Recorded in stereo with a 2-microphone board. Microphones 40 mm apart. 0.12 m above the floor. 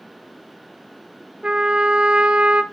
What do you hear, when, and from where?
1.4 s a trumpet: 30° right (ahead or behind), 0.7 m